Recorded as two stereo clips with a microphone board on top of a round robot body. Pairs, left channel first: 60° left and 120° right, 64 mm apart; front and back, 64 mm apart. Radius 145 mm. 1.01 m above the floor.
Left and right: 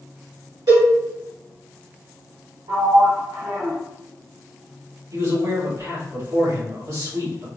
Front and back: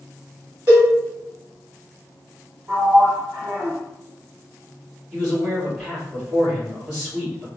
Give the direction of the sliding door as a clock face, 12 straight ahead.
4 o'clock.